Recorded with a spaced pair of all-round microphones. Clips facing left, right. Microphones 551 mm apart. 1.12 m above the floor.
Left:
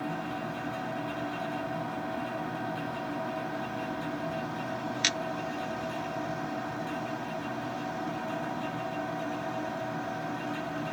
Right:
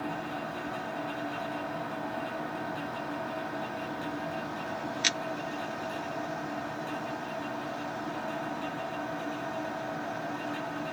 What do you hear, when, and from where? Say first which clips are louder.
0.0 s a machine running: left 1 dB; 25° left (ahead or behind), 6.5 m